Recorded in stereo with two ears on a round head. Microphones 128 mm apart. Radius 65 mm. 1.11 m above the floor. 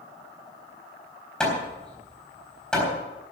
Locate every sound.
1.4 s hammering: 5° left (ahead or behind), 4 m